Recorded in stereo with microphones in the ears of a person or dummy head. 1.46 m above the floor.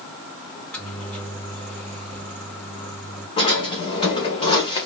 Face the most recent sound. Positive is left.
turn(degrees=35)  # may be behind; listen again after turning